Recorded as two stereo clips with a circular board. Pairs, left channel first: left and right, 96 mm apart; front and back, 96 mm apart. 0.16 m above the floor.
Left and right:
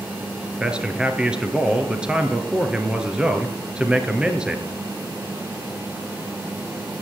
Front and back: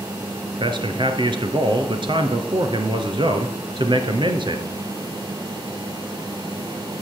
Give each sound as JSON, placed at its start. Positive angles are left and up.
{"t": 0.6, "sound": "a man speaking", "azimuth_deg": -170, "distance_m": 2.0}